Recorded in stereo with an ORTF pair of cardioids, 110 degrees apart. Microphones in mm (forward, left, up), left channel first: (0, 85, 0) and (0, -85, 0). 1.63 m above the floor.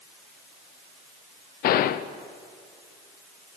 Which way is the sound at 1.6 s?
65° left.